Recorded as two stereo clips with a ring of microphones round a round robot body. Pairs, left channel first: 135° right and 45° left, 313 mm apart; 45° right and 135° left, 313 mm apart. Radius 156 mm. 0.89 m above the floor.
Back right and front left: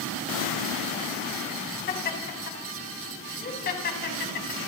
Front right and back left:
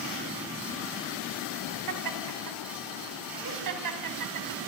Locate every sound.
1.9 s laughter: 165° left, 5.5 m